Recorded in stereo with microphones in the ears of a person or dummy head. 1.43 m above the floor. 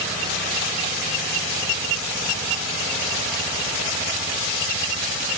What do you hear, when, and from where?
Only background noise.